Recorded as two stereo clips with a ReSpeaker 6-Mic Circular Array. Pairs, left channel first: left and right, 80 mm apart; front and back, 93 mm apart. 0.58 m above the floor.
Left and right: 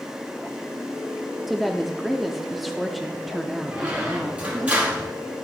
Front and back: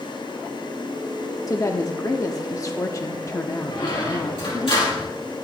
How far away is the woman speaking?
About 0.7 m.